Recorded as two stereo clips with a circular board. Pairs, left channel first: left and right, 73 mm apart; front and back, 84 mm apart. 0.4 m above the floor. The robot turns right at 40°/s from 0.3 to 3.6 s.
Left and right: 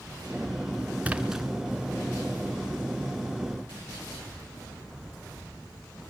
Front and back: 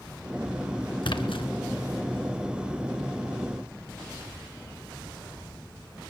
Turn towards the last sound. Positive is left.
turn(degrees=85)